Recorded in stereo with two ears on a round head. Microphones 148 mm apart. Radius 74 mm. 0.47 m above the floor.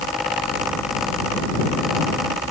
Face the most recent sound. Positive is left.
No sound to turn to.